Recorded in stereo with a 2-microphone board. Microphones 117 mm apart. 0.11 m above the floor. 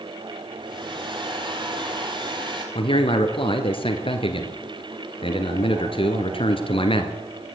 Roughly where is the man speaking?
Left.